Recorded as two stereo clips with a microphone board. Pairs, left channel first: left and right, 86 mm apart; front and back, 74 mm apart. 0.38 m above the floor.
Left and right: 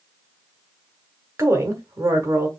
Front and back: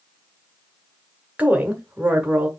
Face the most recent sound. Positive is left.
turn(degrees=-120)